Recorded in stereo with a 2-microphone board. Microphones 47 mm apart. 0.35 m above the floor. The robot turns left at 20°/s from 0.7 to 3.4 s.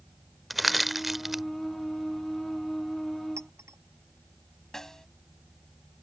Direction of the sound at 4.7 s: 10° left (ahead or behind).